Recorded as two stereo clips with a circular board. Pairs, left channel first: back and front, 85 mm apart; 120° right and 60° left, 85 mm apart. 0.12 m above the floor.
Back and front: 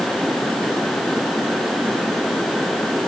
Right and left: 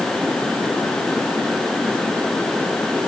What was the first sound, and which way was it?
Only background noise.